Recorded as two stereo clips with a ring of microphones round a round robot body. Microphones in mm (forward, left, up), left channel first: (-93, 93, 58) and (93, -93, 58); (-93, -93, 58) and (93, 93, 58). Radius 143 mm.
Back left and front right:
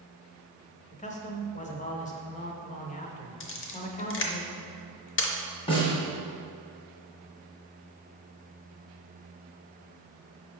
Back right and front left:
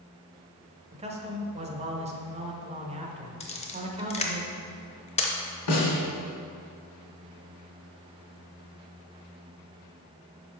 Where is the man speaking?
95° left, 1.0 m.